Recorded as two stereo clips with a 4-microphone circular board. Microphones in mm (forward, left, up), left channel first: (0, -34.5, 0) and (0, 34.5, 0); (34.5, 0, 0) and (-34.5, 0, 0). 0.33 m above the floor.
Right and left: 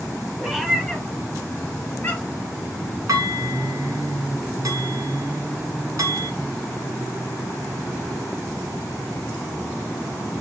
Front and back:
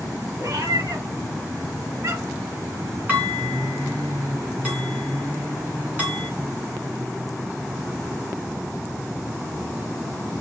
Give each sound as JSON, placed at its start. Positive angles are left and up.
{"t": 0.4, "sound": "a cat meowing", "azimuth_deg": 170, "distance_m": 1.1}
{"t": 3.1, "sound": "dishes clattering", "azimuth_deg": 115, "distance_m": 2.5}